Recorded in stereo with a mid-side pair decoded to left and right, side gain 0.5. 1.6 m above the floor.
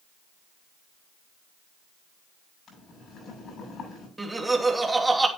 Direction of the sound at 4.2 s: 15° right.